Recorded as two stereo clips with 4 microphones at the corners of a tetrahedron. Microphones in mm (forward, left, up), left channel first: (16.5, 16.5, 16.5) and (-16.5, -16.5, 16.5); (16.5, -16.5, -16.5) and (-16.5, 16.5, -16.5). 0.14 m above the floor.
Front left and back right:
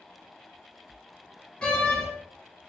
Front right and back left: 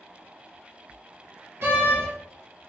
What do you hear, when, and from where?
1.6 s a door slam: 105° left, 1.5 m